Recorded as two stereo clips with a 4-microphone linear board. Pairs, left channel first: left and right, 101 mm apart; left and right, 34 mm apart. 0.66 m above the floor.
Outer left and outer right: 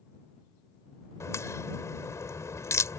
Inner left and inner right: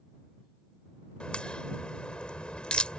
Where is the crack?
30° left (ahead or behind).